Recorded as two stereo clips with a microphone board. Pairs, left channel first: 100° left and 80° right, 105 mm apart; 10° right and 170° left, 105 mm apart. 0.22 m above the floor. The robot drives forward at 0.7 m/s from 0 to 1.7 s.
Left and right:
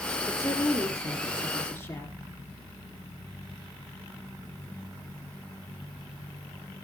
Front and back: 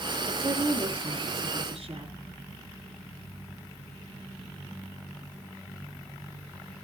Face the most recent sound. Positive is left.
turn(degrees=170)